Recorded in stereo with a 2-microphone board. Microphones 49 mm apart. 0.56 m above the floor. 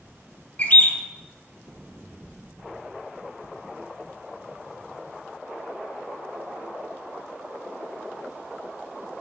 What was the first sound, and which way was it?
A bird, 30° left (ahead or behind).